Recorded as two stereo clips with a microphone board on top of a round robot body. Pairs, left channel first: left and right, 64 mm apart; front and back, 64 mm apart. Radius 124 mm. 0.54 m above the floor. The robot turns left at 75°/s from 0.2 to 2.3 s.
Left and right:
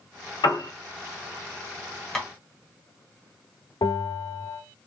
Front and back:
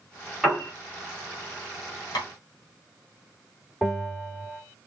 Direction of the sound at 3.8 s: 85° left.